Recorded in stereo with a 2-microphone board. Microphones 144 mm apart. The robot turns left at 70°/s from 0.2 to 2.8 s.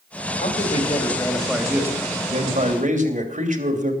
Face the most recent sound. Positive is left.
turn(degrees=-85)